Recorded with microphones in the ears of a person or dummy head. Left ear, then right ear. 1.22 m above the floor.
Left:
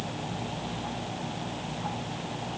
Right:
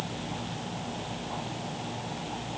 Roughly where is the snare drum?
I don't hear a snare drum.